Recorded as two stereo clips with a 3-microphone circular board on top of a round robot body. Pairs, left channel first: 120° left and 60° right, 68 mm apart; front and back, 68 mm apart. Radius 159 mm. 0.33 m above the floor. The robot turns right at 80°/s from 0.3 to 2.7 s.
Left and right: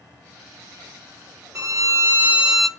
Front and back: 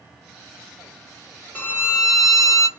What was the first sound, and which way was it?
A violin, 60° right.